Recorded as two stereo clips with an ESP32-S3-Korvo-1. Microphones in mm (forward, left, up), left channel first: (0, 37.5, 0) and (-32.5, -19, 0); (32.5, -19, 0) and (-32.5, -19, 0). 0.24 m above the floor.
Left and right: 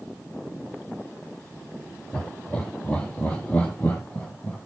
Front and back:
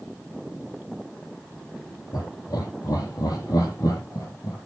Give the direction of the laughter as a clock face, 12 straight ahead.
12 o'clock.